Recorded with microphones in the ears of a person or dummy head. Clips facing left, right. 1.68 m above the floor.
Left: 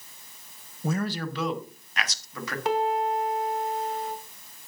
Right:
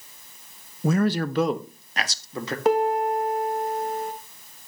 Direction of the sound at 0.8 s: 65° right (ahead or behind).